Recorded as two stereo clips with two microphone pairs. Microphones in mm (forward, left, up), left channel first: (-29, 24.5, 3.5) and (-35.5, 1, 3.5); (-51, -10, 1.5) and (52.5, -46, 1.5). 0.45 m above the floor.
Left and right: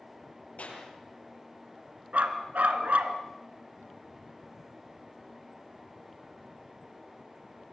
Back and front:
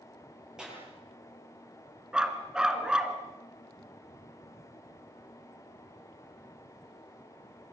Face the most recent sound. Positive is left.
turn(degrees=-100)